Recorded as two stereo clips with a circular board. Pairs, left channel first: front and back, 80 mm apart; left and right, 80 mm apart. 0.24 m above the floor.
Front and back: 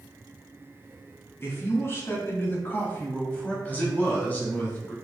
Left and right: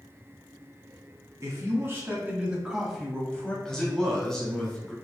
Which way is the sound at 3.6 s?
15° left.